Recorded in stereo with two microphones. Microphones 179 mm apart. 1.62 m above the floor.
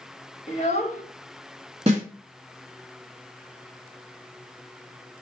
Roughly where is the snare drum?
Right.